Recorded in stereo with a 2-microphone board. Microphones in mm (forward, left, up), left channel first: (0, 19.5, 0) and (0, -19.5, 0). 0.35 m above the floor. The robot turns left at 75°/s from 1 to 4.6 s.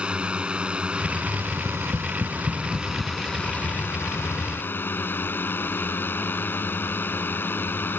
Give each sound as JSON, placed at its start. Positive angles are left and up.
{"t": 0.0, "sound": "a drone", "azimuth_deg": -30}
{"t": 1.6, "sound": "tapping", "side_deg": -45}